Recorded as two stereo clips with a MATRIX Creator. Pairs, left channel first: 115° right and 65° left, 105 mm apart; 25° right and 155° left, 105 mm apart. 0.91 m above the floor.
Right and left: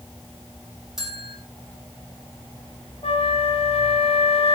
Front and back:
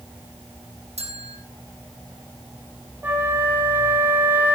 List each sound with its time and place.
1.0 s a bell: 155° left, 5.5 m
3.0 s a flute: 130° right, 3 m